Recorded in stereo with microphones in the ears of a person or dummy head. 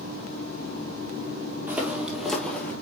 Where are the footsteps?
10° right (ahead or behind), 2 m; by 2.7 s 10° left (ahead or behind), 1.8 m.